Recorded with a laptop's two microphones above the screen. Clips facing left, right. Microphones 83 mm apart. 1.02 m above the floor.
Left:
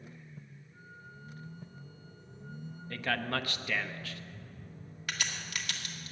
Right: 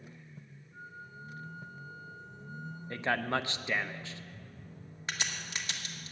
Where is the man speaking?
25° right (ahead or behind), 0.6 m.